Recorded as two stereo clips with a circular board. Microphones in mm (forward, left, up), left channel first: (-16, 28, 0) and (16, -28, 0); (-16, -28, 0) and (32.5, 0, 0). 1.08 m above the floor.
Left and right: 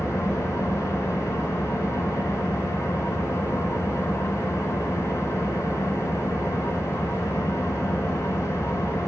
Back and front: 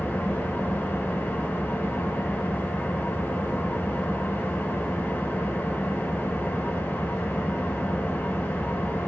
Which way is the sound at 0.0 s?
150° left.